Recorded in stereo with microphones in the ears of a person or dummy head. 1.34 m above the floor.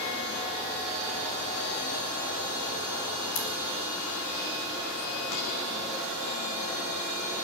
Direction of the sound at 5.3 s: 85° left.